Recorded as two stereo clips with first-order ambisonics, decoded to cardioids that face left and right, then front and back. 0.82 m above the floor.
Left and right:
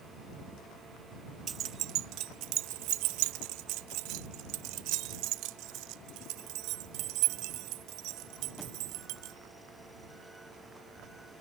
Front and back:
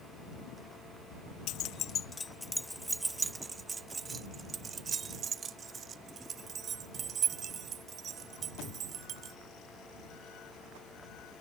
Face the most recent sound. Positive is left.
turn(degrees=-120)